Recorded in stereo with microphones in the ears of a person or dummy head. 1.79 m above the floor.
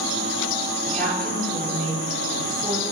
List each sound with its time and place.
0.8 s a woman speaking: 5° left (ahead or behind), 5 m